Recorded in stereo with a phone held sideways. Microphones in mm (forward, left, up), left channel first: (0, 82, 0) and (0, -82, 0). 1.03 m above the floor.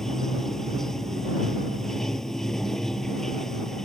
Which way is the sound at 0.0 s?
5° left (ahead or behind).